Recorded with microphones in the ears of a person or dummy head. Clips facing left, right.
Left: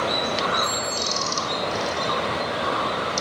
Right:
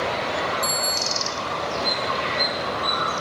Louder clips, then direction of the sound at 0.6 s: Even; 60° right (ahead or behind).